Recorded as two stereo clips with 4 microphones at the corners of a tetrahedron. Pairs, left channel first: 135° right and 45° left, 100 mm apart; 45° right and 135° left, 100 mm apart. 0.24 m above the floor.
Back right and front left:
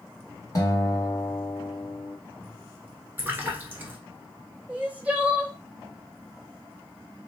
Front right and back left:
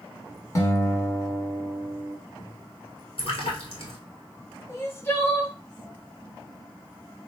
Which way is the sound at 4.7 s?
15° right.